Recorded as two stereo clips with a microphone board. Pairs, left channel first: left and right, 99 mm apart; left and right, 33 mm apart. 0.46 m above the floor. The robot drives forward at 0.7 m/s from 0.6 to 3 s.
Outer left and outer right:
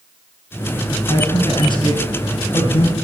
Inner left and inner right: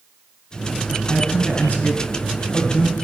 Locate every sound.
1.1 s a man speaking: 45° left (ahead or behind), 3 m; by 2.9 s 65° left (ahead or behind), 2.5 m